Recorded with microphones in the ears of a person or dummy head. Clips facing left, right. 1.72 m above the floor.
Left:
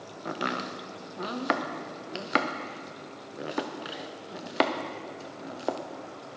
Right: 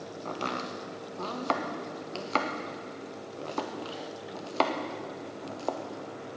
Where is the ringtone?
No ringtone in this recording.